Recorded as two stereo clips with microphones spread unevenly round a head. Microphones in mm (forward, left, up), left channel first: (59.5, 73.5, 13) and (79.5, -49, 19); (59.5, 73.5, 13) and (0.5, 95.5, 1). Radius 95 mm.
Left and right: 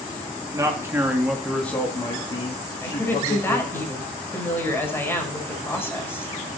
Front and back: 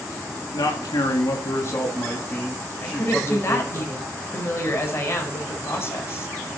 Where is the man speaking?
20° right, 2.5 m; by 3.8 s 70° left, 3.5 m.